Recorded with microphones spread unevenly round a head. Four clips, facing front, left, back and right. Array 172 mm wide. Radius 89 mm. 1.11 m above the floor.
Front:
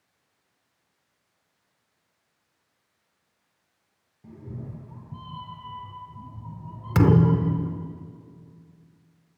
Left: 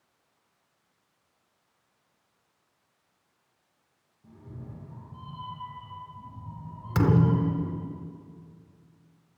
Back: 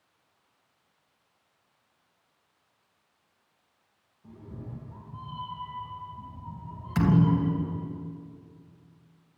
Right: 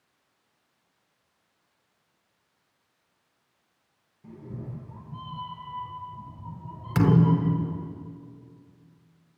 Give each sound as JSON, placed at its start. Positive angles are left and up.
{"t": 4.2, "sound": "a cat meowing", "azimuth_deg": -25, "distance_m": 5.5}
{"t": 7.0, "sound": "a thud", "azimuth_deg": 0, "distance_m": 1.4}